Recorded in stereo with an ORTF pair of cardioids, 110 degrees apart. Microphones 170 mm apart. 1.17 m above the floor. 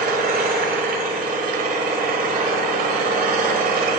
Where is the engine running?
65° right, 2 m.